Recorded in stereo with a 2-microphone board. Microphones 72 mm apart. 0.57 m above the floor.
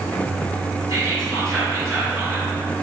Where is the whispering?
50° right (ahead or behind), 1.8 m.